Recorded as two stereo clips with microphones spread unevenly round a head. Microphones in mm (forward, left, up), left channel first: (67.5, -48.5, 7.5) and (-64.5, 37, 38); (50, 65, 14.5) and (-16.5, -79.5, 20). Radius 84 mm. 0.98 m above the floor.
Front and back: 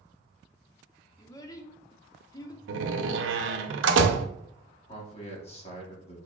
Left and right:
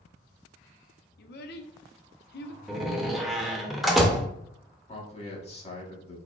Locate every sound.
1.2 s a child speaking: 40° left, 0.7 m
2.7 s a door slam: 155° left, 0.7 m
4.9 s a man speaking: 15° left, 1.8 m